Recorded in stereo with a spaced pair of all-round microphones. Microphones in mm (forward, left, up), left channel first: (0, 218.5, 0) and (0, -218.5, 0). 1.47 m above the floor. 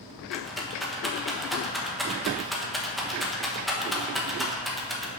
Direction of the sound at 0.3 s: Centre (ahead or behind).